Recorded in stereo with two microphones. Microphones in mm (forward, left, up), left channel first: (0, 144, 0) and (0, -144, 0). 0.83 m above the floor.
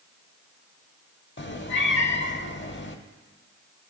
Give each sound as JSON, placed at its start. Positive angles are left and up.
{"t": 1.4, "sound": "a cat meowing", "side_deg": 45, "distance_m": 0.8}